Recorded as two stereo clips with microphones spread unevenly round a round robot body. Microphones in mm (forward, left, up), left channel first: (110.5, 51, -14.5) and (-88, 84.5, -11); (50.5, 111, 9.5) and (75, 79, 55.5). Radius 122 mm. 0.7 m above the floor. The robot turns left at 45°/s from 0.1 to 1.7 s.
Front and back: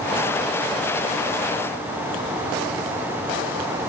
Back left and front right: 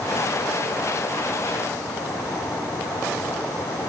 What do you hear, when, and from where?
Only background noise.